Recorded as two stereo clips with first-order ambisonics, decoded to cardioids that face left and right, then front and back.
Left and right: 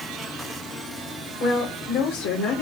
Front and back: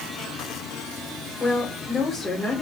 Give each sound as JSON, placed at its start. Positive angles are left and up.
{"t": 1.4, "sound": "a woman speaking", "azimuth_deg": 75, "distance_m": 6.0}